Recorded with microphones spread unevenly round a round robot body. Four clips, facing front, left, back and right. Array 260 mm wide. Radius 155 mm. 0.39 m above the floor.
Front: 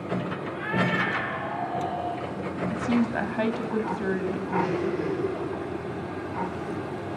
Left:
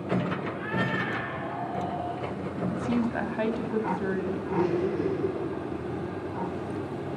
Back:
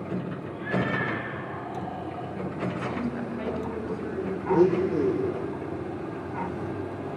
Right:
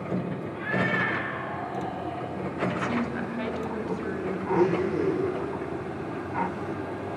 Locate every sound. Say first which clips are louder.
0.5 s a cat meowing: right 2 dB, front 1 dB; straight ahead, 6 m
2.7 s a woman speaking: left 1 dB, front 5 dB; 15° left, 2.5 m
4.5 s a blender: right 3 dB, back 7 dB; 175° left, 4 m